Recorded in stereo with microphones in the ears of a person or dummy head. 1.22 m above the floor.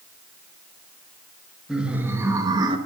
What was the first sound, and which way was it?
Laughter, centre (ahead or behind).